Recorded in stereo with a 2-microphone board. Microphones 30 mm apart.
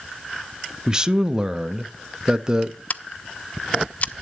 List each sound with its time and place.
0.9 s a man speaking: 20° right (ahead or behind), 0.6 m
2.9 s scissors: 45° left (ahead or behind), 0.5 m